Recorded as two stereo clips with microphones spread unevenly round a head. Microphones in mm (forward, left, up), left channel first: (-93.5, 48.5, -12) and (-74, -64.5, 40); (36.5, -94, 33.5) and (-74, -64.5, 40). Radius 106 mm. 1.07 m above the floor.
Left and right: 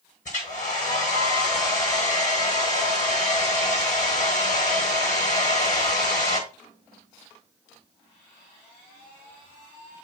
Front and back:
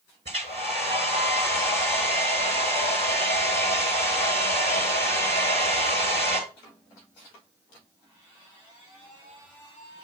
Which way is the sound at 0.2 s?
105° left.